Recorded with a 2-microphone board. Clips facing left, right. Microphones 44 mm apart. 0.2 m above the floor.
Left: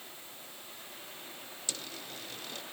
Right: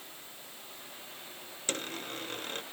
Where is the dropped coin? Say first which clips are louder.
Right 7 dB; 50° right (ahead or behind).